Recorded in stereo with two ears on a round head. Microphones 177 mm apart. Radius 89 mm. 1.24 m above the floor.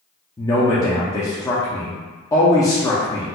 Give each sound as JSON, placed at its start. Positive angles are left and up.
{"t": 0.4, "sound": "a man speaking", "side_deg": 15, "distance_m": 0.5}